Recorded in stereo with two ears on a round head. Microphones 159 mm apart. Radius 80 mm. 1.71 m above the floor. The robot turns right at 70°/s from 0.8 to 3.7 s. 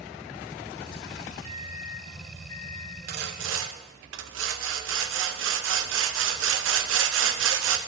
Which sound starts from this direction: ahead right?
A microwave, at 1.4 s.